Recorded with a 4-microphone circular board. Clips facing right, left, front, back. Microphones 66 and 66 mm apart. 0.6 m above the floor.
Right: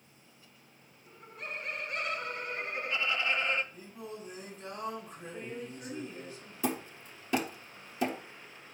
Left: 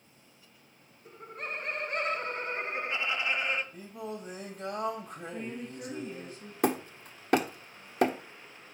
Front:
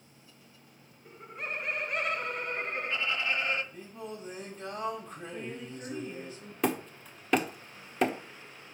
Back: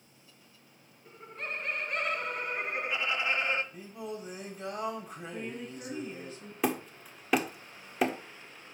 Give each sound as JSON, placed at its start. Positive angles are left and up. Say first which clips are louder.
{"t": 1.1, "sound": "laughter", "louder": "left 4 dB, front 1 dB", "azimuth_deg": 70, "distance_m": 1.5}
{"t": 3.7, "sound": "singing", "louder": "left 4 dB, back 2 dB", "azimuth_deg": 100, "distance_m": 1.9}
{"t": 5.3, "sound": "a woman speaking", "louder": "left 1 dB, back 1 dB", "azimuth_deg": 130, "distance_m": 4.5}
{"t": 6.6, "sound": "hammering", "louder": "left 5 dB, front 1 dB", "azimuth_deg": 95, "distance_m": 1.0}